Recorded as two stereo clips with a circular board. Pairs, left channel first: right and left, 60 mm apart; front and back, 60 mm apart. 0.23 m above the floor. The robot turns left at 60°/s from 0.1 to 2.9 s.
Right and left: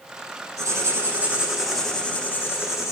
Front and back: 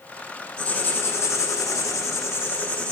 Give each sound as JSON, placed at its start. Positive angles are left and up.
{"t": 0.6, "sound": "writing", "azimuth_deg": 75, "distance_m": 5.0}